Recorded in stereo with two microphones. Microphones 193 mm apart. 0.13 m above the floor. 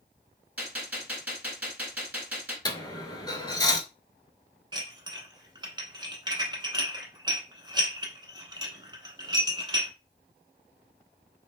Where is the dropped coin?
25° left (ahead or behind), 0.5 m.